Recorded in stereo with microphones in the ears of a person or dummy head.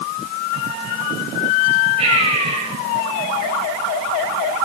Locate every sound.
2.0 s breathing: 35° right (ahead or behind), 6 m